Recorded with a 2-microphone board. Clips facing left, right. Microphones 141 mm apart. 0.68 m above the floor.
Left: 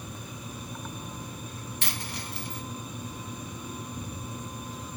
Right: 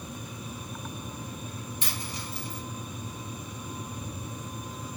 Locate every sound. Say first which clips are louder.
1.8 s a dropped coin: left 3 dB; 65° left (ahead or behind), 1.2 m